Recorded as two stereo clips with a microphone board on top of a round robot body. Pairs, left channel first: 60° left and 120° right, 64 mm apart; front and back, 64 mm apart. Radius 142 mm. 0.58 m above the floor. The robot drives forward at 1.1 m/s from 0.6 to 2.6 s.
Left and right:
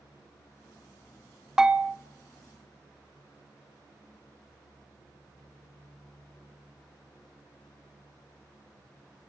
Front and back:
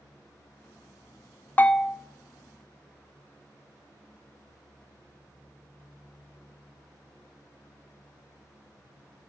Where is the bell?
40° right, 0.6 m; by 2.0 s 135° right, 0.6 m.